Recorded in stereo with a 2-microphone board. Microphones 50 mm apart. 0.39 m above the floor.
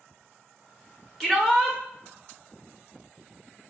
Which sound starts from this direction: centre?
A shout, at 1.2 s.